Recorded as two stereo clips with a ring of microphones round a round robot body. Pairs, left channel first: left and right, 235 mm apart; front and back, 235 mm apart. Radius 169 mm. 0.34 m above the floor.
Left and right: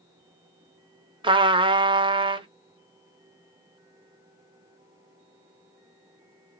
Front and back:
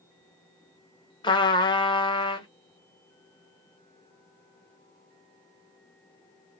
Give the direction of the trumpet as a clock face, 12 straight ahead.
2 o'clock.